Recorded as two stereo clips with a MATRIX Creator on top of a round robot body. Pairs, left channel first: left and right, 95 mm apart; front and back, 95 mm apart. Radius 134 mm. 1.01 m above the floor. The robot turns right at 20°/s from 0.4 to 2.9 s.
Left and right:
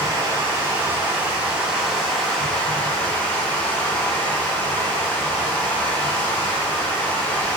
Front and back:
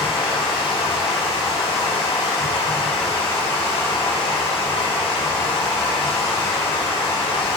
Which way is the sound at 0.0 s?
35° right.